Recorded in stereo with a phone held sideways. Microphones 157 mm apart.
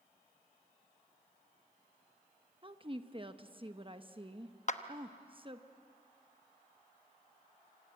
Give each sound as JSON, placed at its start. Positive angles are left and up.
{"t": 2.6, "sound": "a woman speaking", "side_deg": -35, "distance_m": 1.1}
{"t": 4.7, "sound": "a clap", "side_deg": 50, "distance_m": 0.9}